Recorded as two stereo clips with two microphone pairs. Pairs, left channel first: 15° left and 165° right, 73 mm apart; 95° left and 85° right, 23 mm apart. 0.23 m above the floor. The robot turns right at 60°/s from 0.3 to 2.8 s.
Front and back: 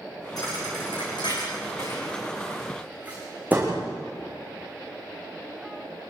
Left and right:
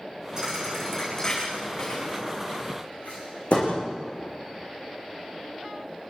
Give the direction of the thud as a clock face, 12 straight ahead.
1 o'clock.